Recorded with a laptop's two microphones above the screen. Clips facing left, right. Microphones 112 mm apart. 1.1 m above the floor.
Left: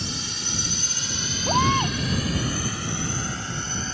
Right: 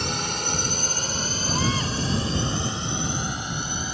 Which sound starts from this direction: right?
A drone, at 0.0 s.